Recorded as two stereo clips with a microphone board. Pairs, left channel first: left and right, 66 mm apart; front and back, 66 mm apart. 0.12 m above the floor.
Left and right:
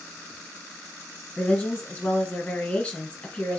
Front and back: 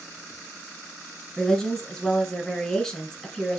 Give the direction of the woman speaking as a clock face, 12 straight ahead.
10 o'clock.